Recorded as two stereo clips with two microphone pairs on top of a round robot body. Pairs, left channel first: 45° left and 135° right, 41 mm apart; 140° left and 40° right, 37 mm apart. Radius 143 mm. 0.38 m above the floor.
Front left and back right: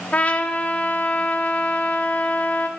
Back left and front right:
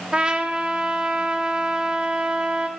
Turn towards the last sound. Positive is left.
turn(degrees=20)